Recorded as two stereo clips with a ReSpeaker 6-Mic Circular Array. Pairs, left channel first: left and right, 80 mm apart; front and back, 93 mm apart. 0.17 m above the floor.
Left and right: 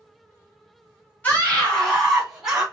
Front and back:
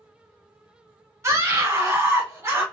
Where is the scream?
145° left, 1.7 m; by 2.6 s 160° right, 1.5 m.